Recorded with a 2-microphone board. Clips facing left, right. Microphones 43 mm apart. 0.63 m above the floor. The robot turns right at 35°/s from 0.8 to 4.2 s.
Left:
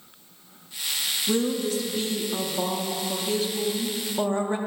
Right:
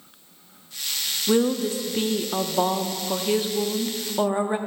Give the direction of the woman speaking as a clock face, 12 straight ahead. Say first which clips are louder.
Right 4 dB; 4 o'clock.